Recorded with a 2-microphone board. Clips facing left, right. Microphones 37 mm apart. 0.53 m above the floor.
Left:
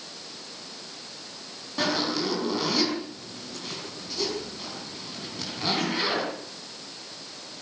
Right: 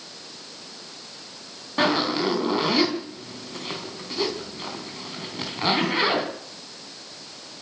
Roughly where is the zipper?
Right.